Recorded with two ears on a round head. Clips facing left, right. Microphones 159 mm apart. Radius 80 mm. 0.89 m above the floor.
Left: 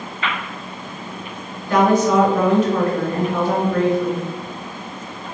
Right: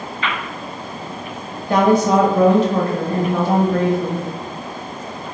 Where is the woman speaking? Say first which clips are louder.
Right 1 dB; 30° right (ahead or behind), 1.0 m.